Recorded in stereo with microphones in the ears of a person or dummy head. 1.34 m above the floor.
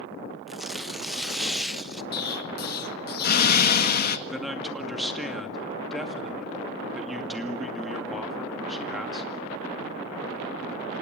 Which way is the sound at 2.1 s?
55° left (ahead or behind).